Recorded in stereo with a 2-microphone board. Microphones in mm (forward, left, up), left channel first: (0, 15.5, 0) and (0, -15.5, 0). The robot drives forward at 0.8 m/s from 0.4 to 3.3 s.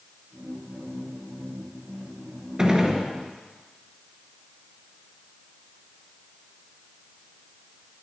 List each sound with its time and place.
2.6 s a gunshot: 25° right (ahead or behind), 1.4 m; by 3.1 s 20° right (ahead or behind), 1.6 m